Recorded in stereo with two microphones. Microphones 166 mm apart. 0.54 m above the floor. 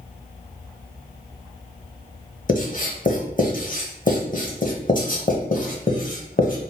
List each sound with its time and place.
2.5 s writing: 55° left (ahead or behind), 0.9 m